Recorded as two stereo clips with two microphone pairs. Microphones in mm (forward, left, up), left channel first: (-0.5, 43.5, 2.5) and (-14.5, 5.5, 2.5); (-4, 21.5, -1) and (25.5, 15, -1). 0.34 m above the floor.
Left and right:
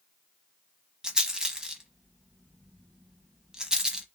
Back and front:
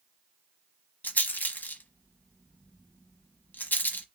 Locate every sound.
1.0 s a rattle: 175° left, 0.9 m